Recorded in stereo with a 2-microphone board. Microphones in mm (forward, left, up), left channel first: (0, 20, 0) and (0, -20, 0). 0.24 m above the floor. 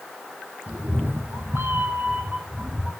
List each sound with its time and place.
0.7 s a cat meowing: 75° right (ahead or behind), 1.8 m; by 2.9 s 20° right (ahead or behind), 2.5 m